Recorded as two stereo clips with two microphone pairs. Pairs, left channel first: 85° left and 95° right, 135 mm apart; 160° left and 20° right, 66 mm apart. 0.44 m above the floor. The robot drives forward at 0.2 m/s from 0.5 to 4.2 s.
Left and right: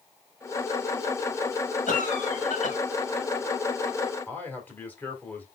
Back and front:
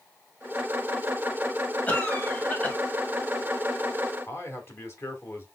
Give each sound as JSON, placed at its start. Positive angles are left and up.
{"t": 1.9, "sound": "a cough", "azimuth_deg": 90, "distance_m": 2.0}
{"t": 4.3, "sound": "a man speaking", "azimuth_deg": 160, "distance_m": 1.5}